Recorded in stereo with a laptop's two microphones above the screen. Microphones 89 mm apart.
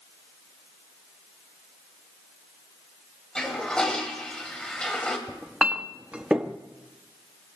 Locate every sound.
3.4 s a toilet flushing: 10° left (ahead or behind), 1.3 m
5.3 s a clink: 10° right (ahead or behind), 0.6 m